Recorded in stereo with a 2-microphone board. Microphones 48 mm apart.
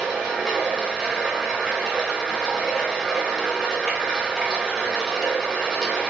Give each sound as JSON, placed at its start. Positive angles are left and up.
{"t": 0.0, "sound": "running water", "side_deg": 0, "distance_m": 0.9}